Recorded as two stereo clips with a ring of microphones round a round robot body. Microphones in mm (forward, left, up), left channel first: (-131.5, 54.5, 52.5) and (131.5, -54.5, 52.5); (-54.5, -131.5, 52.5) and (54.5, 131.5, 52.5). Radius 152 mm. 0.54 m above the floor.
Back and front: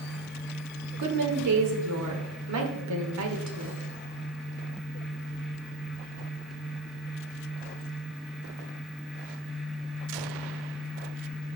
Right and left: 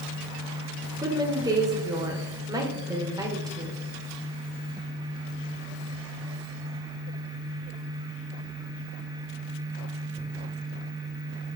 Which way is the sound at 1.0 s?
10° right.